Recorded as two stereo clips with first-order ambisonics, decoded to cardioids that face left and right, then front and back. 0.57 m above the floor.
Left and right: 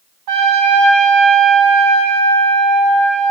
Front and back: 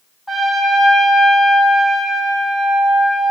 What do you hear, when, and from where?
0.3 s a trumpet: 85° right, 2.5 m